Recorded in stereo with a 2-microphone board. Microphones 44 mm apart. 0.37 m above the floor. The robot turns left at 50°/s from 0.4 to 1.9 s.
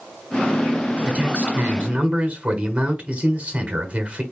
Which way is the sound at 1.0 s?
25° right (ahead or behind).